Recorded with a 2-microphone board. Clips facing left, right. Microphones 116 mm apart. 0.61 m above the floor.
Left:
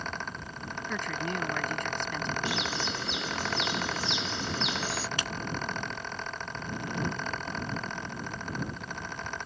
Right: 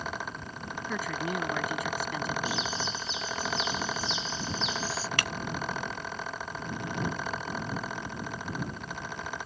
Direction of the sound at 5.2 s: 65° right (ahead or behind).